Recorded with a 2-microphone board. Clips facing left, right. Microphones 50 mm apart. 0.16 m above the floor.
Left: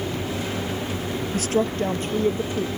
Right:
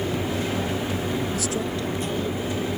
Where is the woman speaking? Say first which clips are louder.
Left 4 dB; 55° left (ahead or behind); by 2.7 s 45° left (ahead or behind).